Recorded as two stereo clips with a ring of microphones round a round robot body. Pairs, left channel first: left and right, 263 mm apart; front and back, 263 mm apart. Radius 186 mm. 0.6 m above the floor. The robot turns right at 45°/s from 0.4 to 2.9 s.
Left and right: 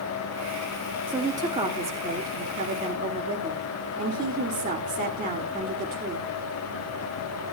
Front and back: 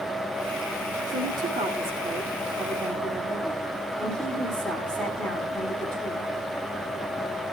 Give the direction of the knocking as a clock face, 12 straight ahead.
No knocking in this recording.